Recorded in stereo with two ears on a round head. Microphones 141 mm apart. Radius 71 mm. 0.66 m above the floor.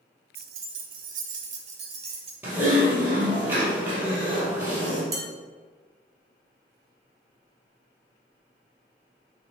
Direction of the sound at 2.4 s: 10° right (ahead or behind).